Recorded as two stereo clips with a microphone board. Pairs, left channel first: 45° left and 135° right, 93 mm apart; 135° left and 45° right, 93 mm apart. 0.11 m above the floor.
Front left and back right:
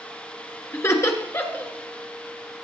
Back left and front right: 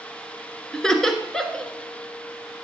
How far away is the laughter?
About 1.3 m.